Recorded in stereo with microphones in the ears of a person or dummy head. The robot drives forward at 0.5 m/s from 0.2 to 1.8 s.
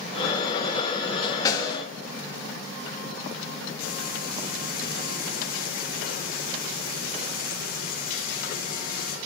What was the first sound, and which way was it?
A snare drum, 15° left (ahead or behind).